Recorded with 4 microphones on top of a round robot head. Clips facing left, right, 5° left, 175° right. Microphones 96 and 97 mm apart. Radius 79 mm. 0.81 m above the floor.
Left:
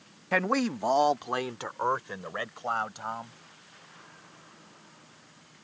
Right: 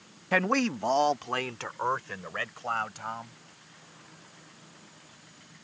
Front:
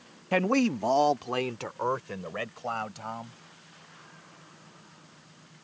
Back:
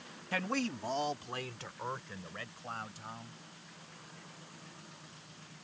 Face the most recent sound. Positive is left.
turn(degrees=20)